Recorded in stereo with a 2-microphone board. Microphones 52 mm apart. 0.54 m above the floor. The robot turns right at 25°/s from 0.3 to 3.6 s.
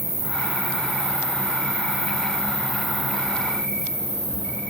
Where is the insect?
65° right, 1.2 m; by 4.7 s 20° left, 1.2 m.